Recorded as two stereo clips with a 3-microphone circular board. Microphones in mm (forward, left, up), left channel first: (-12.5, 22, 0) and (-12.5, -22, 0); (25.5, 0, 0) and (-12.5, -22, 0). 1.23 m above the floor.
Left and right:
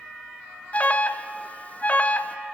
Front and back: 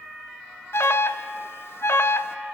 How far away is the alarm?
About 0.7 m.